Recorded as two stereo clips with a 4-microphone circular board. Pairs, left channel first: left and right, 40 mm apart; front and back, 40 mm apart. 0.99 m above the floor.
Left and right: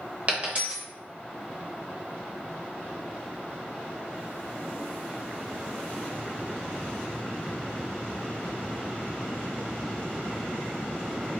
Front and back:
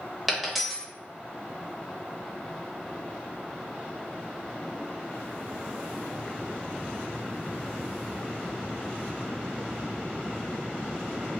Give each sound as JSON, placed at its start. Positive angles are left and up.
{"t": 0.3, "sound": "a dropped coin", "azimuth_deg": -90, "distance_m": 0.8}